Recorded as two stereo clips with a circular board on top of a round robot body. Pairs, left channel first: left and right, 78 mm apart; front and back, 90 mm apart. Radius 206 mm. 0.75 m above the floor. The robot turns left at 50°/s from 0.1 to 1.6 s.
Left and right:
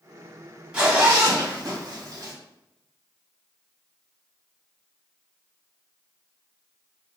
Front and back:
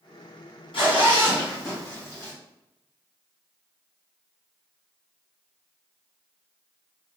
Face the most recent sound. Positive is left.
turn(degrees=-60)